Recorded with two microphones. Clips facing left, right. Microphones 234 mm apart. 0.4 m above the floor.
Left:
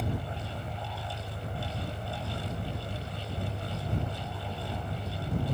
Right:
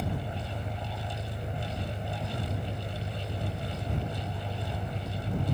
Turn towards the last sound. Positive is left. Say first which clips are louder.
# even
turn(degrees=-25)  # may be behind; listen again after turning